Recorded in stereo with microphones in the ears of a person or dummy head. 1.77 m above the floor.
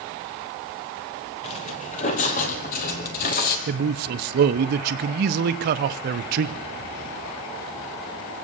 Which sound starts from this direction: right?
A man speaking, at 3.7 s.